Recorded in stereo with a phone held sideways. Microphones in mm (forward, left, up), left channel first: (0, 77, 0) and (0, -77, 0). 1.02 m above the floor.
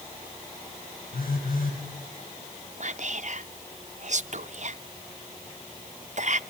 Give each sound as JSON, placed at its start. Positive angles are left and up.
{"t": 1.1, "sound": "a phone buzzing", "side_deg": 75, "distance_m": 5.0}
{"t": 2.8, "sound": "whispering", "side_deg": -55, "distance_m": 0.5}